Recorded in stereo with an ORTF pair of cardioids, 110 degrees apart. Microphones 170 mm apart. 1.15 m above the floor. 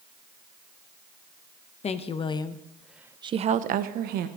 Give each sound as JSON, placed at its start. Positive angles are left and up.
{"t": 1.8, "sound": "a woman speaking", "azimuth_deg": 40, "distance_m": 1.0}